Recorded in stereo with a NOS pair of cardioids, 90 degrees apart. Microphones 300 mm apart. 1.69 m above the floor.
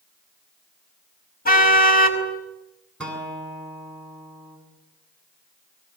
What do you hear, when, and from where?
1.4 s a car horn: 30° left, 5.5 m
3.0 s a guitar: 5° left, 8.5 m